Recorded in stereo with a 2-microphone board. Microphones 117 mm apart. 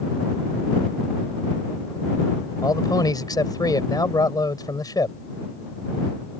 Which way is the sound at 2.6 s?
35° left (ahead or behind).